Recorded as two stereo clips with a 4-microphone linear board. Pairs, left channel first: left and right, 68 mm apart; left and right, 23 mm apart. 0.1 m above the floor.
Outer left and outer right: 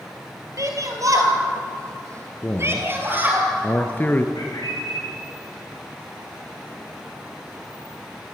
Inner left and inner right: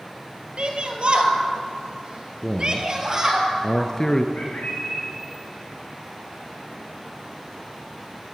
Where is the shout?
50° right (ahead or behind), 3 m; by 3.4 s 25° right (ahead or behind), 3 m.